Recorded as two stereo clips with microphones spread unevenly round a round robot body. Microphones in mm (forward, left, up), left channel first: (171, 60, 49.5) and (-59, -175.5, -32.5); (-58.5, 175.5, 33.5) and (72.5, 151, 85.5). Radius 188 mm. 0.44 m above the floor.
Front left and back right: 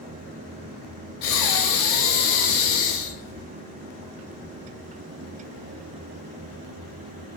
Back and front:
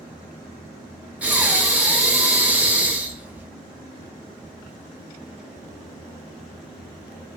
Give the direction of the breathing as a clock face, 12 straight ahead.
10 o'clock.